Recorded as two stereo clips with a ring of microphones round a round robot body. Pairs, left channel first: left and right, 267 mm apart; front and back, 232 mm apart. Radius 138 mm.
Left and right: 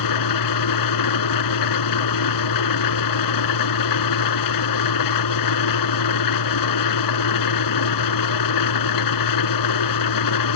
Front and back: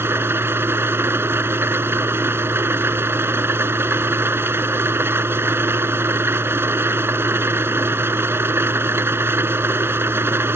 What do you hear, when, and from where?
0.0 s an engine running: 100° left